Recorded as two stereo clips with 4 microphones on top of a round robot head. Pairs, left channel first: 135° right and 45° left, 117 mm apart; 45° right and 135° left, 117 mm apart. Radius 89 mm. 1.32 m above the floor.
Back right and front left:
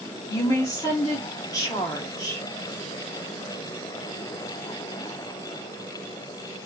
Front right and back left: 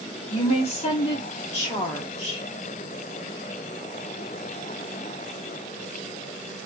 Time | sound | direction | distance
0.3 | a woman speaking | 75° right | 1.4 m